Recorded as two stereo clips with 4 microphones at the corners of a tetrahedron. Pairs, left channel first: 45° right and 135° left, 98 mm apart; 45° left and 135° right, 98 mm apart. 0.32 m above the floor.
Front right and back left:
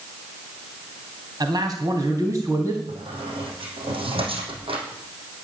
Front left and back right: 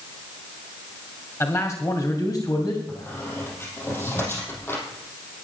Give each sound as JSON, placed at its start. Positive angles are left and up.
{"t": 1.4, "sound": "a man speaking", "azimuth_deg": 100, "distance_m": 1.9}
{"t": 2.9, "sound": "a squeak", "azimuth_deg": 110, "distance_m": 4.0}